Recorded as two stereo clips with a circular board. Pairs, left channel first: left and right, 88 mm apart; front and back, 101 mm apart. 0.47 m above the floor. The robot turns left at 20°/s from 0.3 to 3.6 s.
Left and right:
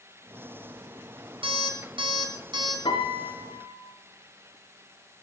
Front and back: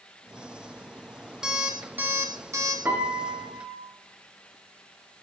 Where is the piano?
110° left, 2.5 m; by 3.8 s 95° left, 2.5 m.